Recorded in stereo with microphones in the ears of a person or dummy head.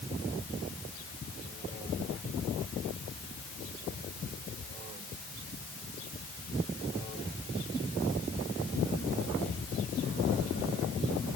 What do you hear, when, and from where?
Only background noise.